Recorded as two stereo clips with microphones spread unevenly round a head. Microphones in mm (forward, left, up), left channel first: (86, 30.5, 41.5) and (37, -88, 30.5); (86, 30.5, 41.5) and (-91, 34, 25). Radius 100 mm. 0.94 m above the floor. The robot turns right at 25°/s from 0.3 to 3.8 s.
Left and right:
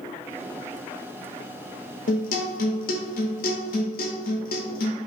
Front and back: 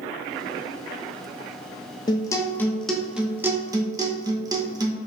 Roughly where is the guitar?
Ahead left.